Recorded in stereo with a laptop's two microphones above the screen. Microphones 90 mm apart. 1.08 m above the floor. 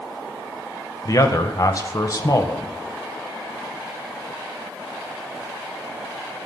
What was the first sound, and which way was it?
A man speaking, 40° left (ahead or behind).